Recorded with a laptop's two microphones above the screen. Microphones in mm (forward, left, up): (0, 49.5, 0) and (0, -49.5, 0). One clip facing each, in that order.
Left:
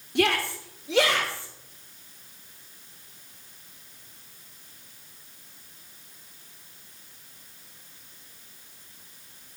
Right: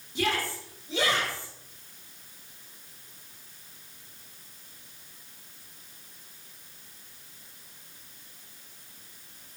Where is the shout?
65° left (ahead or behind), 2.5 m; by 1.5 s 80° left, 3.5 m.